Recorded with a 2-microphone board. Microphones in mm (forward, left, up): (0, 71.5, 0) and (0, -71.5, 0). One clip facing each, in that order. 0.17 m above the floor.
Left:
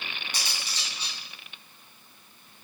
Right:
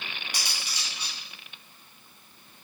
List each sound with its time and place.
0.3 s cutlery clinking: 10° right (ahead or behind), 3 m